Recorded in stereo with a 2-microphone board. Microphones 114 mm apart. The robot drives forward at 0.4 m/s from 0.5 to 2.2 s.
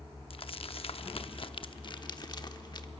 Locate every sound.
0.3 s crumpling: 55° left (ahead or behind), 0.6 m; by 2.9 s 40° left (ahead or behind), 0.8 m